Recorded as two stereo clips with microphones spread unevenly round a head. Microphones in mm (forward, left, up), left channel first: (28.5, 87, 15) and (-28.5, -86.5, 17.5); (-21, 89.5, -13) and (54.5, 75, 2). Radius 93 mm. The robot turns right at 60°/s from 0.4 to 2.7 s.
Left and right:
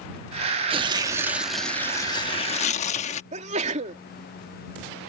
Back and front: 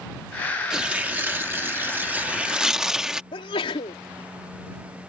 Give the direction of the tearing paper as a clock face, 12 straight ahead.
2 o'clock.